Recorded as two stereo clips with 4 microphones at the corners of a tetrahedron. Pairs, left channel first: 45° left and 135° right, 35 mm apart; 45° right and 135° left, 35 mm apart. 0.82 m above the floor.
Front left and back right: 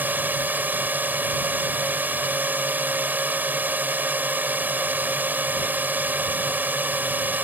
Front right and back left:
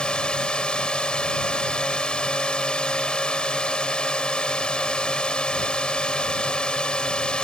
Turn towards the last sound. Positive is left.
turn(degrees=-105)